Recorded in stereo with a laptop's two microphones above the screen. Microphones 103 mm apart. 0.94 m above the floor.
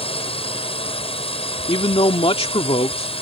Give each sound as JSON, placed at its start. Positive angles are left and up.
{"t": 0.0, "sound": "a drone", "side_deg": 65}
{"t": 1.7, "sound": "a man speaking", "side_deg": 70}